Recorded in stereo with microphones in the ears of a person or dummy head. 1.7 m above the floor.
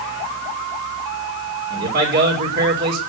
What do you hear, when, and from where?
1.7 s a man speaking: 55° right (ahead or behind), 5.5 m